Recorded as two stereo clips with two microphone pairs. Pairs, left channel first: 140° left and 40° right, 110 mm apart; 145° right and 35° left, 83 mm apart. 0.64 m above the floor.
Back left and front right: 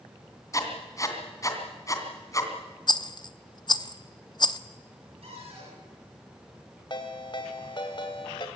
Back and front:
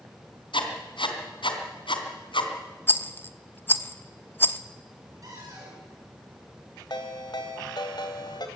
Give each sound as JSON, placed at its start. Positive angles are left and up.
{"t": 0.5, "sound": "writing", "azimuth_deg": -155, "distance_m": 3.0}
{"t": 2.9, "sound": "a rattle", "azimuth_deg": 160, "distance_m": 0.8}
{"t": 5.2, "sound": "a cupboard door", "azimuth_deg": -10, "distance_m": 7.5}
{"t": 6.9, "sound": "a ringtone", "azimuth_deg": -175, "distance_m": 2.5}